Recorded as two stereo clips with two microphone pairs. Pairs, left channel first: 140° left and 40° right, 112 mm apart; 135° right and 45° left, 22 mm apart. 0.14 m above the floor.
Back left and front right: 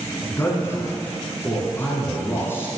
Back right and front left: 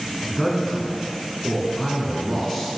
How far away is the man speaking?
About 1.3 m.